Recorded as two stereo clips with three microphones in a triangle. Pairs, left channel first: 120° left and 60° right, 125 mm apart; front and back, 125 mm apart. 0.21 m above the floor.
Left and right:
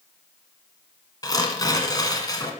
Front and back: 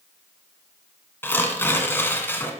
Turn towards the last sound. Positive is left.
turn(degrees=70)